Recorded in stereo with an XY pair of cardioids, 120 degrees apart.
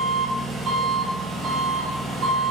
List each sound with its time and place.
0.0 s an engine running: 45° right, 1.5 m